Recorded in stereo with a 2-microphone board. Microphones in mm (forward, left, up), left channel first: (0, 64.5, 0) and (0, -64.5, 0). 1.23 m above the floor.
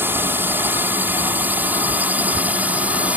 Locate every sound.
0.0 s a drone: 15° right (ahead or behind); by 3.2 s 10° right (ahead or behind)